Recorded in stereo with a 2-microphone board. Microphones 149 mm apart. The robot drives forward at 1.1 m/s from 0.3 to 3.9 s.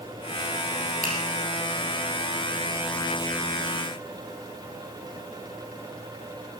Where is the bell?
I don't hear a bell.